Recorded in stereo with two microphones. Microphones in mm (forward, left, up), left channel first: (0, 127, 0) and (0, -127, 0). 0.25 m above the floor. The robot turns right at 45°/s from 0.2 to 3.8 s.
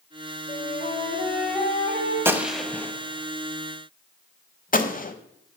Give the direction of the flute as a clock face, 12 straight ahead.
7 o'clock.